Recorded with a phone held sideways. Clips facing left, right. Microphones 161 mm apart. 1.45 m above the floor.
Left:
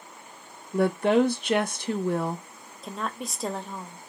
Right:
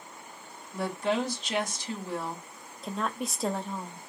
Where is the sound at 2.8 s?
Centre (ahead or behind), 0.6 m.